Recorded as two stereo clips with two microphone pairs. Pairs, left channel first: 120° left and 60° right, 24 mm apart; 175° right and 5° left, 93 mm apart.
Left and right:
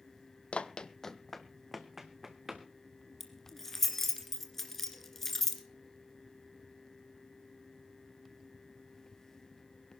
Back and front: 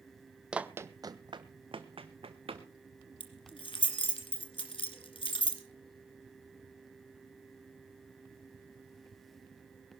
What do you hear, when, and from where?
0.5 s running footsteps: 85° left, 0.6 m; by 2.7 s 10° left, 1.6 m
3.2 s keys jangling: 165° right, 2.5 m